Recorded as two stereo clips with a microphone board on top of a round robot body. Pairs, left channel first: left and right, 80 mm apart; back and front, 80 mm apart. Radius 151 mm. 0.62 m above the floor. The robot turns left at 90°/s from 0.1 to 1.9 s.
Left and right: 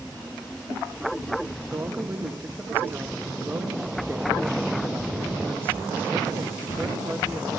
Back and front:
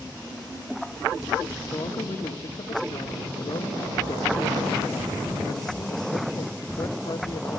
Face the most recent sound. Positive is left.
turn(degrees=-155)